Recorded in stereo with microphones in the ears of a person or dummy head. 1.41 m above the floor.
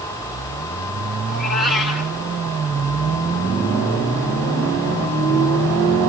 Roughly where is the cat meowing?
Left.